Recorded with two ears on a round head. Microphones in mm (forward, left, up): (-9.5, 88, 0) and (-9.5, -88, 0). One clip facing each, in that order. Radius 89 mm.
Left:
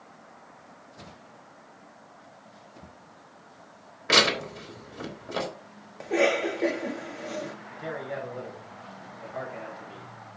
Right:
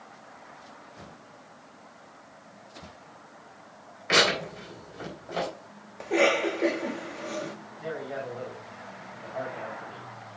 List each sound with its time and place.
4.1 s tearing paper: 60° left (ahead or behind), 3.5 m
6.0 s a cough: centre (ahead or behind), 1.7 m
7.8 s a man speaking: 45° left (ahead or behind), 5 m